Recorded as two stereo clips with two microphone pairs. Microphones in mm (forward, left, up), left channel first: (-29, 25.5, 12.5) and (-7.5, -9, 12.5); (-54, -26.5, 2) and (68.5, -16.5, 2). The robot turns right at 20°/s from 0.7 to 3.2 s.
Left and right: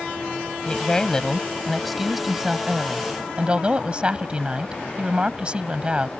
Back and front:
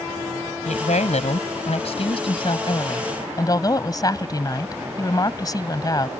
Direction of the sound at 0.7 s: 170° right.